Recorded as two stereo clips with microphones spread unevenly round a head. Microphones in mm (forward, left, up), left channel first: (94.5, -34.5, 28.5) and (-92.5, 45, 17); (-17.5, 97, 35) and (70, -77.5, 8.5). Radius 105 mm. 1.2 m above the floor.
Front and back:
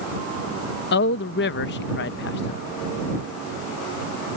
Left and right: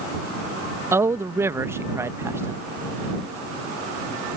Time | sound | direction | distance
0.9 | a man speaking | 15° left | ?